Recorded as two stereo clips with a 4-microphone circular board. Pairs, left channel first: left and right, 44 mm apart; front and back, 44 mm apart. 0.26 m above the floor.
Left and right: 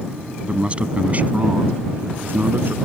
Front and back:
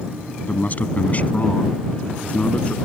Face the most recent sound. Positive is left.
turn(degrees=-60)